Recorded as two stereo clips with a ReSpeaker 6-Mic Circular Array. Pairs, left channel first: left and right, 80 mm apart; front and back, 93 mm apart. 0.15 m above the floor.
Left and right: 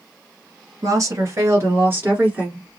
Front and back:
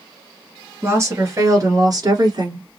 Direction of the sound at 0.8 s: 125° right.